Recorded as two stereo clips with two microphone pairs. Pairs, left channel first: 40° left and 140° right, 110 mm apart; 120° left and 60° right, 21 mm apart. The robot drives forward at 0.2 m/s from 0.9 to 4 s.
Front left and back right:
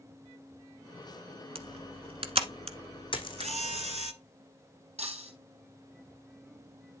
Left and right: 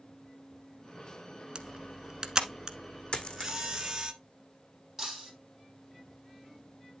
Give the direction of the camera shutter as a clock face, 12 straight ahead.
4 o'clock.